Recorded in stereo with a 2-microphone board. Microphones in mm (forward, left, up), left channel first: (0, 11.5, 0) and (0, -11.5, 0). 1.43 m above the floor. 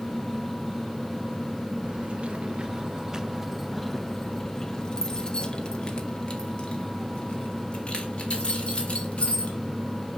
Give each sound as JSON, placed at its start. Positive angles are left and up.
{"t": 1.8, "sound": "keys jangling", "side_deg": -55, "distance_m": 1.0}